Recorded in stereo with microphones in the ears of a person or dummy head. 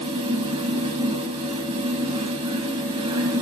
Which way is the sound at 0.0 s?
30° right (ahead or behind).